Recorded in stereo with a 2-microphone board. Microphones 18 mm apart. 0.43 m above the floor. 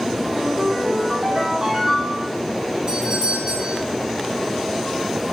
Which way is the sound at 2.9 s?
50° right (ahead or behind).